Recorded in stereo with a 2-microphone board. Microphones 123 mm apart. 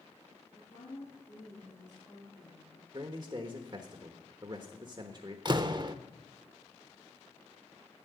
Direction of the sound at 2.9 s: 40° right (ahead or behind).